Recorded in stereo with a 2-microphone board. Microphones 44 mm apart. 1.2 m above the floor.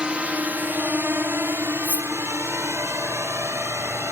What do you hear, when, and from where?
0.0 s a drone: 25° right (ahead or behind); by 4.1 s 75° right (ahead or behind)
1.8 s cutlery clinking: 40° right (ahead or behind)